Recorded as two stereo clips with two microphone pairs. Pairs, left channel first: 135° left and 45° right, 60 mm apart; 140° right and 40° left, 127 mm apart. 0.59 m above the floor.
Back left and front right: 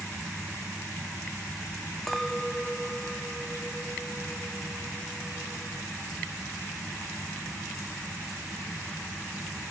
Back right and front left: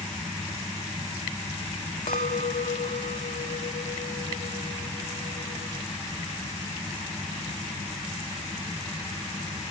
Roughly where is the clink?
Behind right.